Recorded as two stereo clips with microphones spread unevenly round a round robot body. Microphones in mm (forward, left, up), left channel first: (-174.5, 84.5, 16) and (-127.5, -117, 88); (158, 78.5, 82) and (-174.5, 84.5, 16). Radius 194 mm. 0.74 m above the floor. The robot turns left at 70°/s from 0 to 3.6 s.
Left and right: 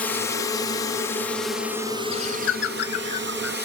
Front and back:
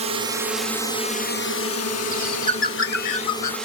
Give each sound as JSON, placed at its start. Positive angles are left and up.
{"t": 0.0, "sound": "a drone", "azimuth_deg": 150}
{"t": 2.1, "sound": "a bird", "azimuth_deg": 100}